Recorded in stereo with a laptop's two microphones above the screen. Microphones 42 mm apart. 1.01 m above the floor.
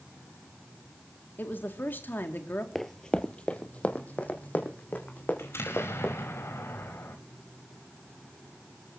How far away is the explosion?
About 4.5 m.